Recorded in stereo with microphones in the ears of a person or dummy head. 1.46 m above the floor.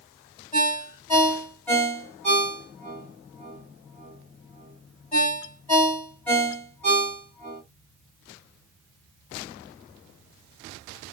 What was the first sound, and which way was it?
A ringtone, 10° left (ahead or behind).